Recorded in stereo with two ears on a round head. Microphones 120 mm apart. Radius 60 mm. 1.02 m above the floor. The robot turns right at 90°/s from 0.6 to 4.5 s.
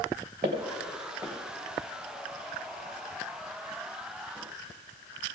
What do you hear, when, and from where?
0.4 s footsteps: 60° right (ahead or behind), 3 m; by 1.3 s centre (ahead or behind), 3 m